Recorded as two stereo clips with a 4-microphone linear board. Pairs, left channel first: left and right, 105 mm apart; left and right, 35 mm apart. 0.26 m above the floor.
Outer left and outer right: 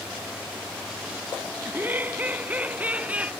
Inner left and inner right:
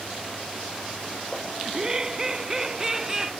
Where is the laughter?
20° right (ahead or behind); by 3.3 s 15° right (ahead or behind).